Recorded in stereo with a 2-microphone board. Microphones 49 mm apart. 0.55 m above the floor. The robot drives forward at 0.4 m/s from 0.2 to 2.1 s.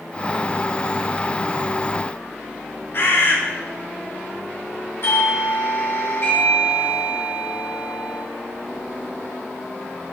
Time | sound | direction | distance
2.9 | a bird | 55° left (ahead or behind) | 2 m
5.0 | a doorbell | 55° left (ahead or behind) | 4 m